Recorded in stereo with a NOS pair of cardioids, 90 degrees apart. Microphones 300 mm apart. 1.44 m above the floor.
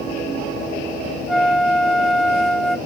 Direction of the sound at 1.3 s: Straight ahead.